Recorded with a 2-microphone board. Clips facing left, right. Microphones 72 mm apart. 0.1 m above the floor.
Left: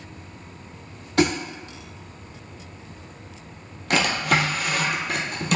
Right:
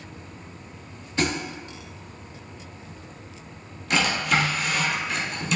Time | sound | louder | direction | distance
1.2 | a thud | left 5 dB | 70° left (ahead or behind) | 1.1 m
3.9 | a drawer | left 1 dB | 60° left (ahead or behind) | 0.7 m